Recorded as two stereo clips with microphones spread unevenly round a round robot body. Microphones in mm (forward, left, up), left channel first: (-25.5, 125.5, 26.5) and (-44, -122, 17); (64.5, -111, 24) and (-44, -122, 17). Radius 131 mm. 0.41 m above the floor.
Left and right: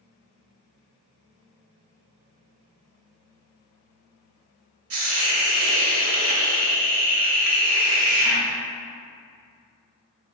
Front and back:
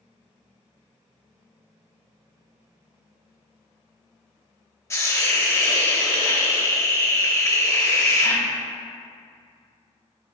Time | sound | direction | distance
4.9 | a hiss | 60° right | 0.8 m